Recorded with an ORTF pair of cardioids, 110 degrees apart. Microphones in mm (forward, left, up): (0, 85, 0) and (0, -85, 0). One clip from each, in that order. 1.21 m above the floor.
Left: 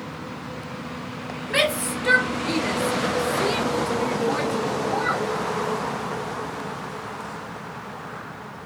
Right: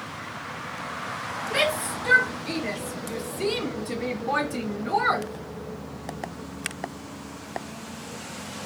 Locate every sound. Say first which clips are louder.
1.5 s a shout: left 3 dB; 45° left, 1.7 m; by 5.3 s 50° right, 1.3 m